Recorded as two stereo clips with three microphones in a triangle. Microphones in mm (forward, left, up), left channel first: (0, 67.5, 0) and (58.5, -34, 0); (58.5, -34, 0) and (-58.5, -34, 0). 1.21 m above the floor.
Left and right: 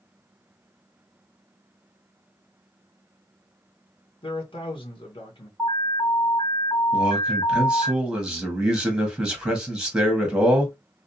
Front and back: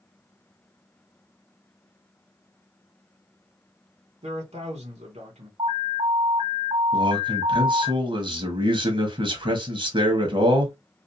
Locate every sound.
4.2 s a man speaking: 160° left, 0.9 m
5.6 s an alarm: 160° right, 1.3 m
6.9 s a man speaking: 145° right, 1.0 m